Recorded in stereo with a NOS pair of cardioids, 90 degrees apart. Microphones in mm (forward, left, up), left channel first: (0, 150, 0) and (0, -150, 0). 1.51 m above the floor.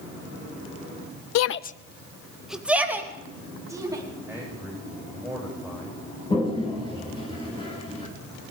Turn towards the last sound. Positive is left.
turn(degrees=15)